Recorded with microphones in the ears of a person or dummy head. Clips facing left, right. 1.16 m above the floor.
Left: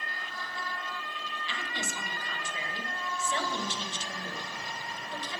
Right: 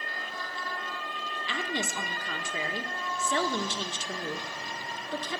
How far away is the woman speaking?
About 1.5 m.